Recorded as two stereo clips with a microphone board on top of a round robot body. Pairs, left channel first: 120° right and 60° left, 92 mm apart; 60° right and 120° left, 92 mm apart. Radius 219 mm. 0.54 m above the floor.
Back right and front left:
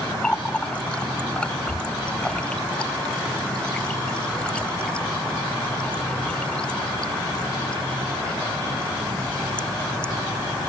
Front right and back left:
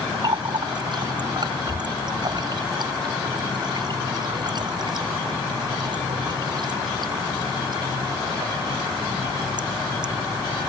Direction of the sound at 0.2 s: 160° left.